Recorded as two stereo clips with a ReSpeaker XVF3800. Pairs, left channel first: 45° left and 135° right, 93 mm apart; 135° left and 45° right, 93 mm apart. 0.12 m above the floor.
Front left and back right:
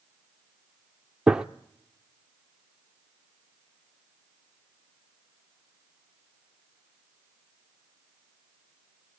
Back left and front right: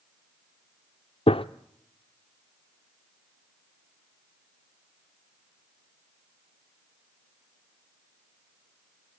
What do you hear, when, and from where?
1.3 s a gunshot: 145° left, 0.6 m